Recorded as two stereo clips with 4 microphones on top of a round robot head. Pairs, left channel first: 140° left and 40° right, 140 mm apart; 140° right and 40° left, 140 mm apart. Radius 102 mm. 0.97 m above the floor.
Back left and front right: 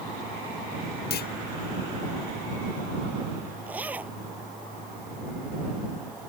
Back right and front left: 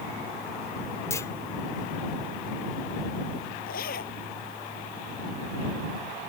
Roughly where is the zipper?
Behind right.